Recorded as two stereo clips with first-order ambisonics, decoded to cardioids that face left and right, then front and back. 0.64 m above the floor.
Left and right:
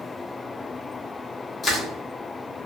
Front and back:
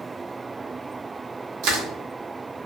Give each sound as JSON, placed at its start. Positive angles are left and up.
{"t": 1.6, "sound": "crushing", "azimuth_deg": 160, "distance_m": 0.8}